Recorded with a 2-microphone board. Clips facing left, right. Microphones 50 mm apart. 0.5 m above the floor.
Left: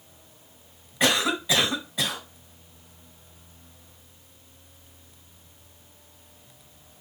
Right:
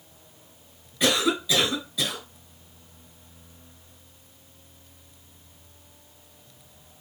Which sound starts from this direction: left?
A cough, at 1.0 s.